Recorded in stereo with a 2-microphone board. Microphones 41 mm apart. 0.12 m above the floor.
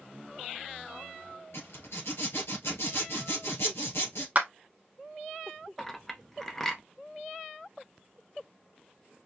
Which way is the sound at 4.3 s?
35° right (ahead or behind).